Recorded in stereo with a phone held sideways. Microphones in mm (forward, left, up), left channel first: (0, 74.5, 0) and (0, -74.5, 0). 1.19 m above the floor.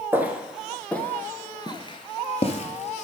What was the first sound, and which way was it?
Footsteps, 15° right (ahead or behind).